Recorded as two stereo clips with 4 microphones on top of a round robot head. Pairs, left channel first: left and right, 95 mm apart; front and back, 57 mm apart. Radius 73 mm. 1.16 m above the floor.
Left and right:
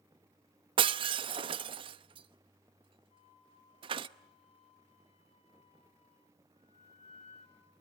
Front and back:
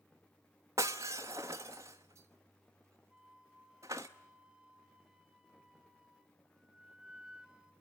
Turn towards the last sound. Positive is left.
turn(degrees=105)